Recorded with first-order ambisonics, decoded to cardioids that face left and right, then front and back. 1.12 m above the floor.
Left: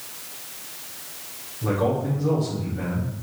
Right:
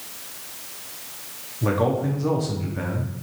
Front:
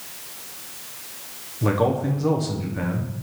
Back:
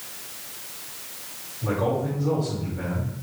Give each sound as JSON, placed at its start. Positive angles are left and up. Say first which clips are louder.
{"t": 1.6, "sound": "a man speaking", "louder": "right 1 dB, front 3 dB", "azimuth_deg": -30, "distance_m": 0.8}